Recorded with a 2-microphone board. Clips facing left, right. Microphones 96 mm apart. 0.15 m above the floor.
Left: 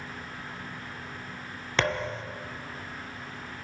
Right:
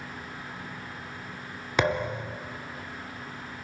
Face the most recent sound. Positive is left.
turn(degrees=-15)  # may be behind; listen again after turning